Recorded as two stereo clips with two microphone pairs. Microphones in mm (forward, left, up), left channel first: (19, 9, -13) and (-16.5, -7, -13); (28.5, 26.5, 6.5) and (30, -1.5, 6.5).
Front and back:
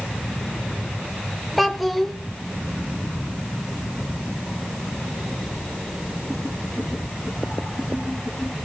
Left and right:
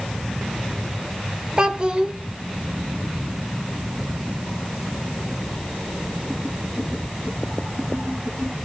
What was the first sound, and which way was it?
A child speaking, 70° right.